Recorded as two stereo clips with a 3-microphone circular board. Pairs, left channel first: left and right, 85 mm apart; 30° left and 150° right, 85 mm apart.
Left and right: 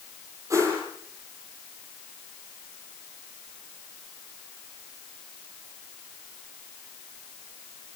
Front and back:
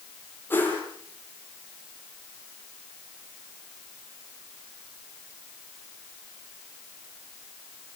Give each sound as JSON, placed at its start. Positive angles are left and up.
{"t": 0.5, "sound": "a whoosh", "azimuth_deg": -35, "distance_m": 9.0}